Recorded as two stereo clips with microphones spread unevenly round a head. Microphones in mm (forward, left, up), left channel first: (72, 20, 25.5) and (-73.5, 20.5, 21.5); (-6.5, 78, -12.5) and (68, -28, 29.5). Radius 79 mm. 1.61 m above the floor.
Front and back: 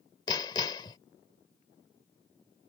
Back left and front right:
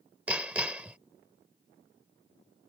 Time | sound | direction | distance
0.3 | hammering | 30° right | ?